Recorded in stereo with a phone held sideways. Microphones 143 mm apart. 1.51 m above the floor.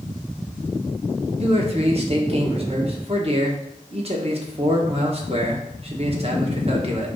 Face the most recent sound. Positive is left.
turn(degrees=-45)  # may be behind; listen again after turning